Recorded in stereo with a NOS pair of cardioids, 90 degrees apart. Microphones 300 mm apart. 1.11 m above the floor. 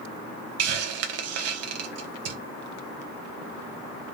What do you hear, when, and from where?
0.6 s a hiss: 60° right, 0.6 m